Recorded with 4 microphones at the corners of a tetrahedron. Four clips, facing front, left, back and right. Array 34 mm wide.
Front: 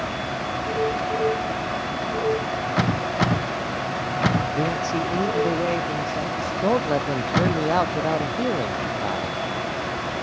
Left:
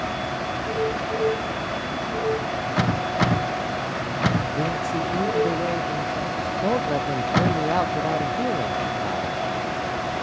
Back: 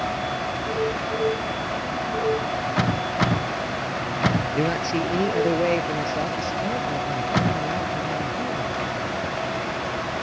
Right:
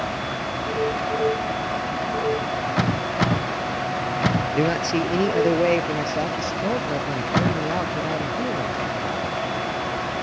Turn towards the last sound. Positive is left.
turn(degrees=15)